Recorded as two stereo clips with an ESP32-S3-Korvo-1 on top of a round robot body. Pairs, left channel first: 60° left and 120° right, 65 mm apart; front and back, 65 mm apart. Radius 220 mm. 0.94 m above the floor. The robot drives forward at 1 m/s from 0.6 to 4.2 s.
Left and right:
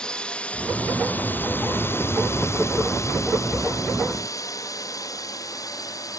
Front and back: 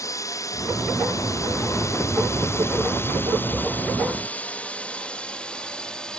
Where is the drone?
15° right; by 6.2 s 75° left.